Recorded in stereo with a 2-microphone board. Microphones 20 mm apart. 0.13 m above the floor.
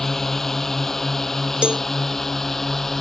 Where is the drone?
20° left (ahead or behind).